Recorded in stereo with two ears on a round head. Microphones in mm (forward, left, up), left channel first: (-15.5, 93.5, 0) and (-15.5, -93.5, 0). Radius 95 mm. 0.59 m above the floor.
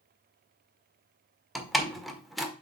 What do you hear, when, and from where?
1.6 s a door slam: centre (ahead or behind), 1.4 m